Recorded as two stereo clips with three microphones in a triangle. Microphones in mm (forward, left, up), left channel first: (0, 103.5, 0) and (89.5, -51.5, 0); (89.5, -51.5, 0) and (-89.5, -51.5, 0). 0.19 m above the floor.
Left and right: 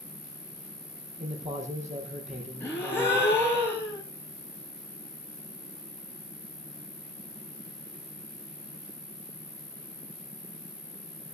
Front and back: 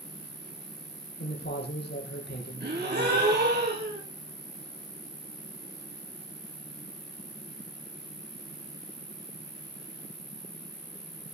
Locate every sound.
0.0 s an insect: 70° right, 4.5 m
1.2 s a man speaking: 10° right, 7 m
2.6 s a gasp: 165° right, 8.5 m